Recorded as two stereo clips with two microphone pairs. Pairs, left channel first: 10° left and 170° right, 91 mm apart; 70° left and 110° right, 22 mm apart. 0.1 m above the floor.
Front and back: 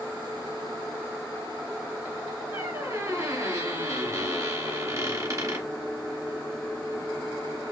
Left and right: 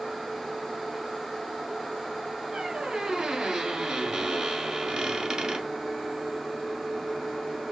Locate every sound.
2.5 s a squeak: 140° right, 1.4 m